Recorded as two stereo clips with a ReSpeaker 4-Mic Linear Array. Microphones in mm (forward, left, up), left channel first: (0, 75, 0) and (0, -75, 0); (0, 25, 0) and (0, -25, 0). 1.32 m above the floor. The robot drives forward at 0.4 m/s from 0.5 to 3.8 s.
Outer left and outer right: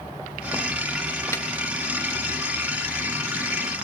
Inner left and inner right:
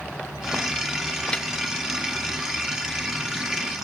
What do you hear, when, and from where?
1.3 s a snare drum: 20° left (ahead or behind), 1.5 m